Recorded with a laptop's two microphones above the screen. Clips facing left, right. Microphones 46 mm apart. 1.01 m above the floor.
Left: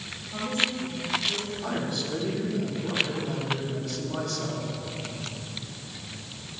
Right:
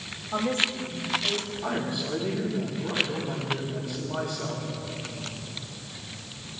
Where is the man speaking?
15° right (ahead or behind), 6.5 m.